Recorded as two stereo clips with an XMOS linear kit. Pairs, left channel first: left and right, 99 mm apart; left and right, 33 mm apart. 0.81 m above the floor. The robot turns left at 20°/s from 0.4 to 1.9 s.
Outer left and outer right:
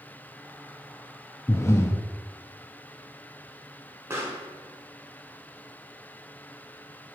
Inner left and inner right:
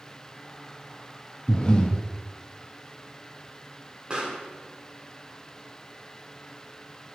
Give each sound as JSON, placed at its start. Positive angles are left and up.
{"t": 1.5, "sound": "breathing", "side_deg": 30, "distance_m": 0.6}
{"t": 4.1, "sound": "a pop", "side_deg": -30, "distance_m": 1.5}